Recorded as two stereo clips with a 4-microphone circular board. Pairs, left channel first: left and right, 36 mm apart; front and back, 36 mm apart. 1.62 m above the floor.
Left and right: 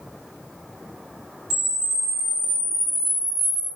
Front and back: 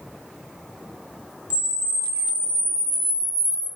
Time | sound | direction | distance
1.5 | a camera shutter | 165° right | 1.4 m